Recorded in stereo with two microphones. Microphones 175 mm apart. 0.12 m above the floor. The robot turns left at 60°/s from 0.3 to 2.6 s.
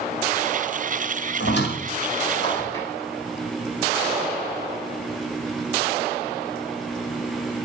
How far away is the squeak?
About 1.9 m.